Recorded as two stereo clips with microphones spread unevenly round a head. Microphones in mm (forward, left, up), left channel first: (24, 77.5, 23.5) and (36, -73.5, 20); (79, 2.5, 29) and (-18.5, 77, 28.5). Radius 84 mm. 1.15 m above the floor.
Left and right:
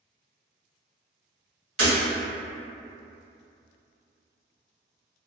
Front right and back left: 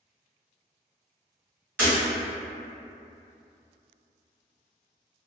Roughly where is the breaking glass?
Behind right.